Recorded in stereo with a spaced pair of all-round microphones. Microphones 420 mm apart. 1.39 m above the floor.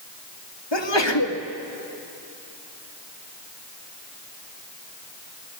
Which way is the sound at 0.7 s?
90° left.